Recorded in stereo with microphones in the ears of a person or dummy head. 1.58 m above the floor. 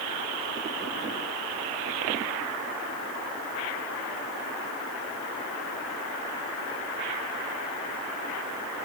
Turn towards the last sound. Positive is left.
No sound to turn to.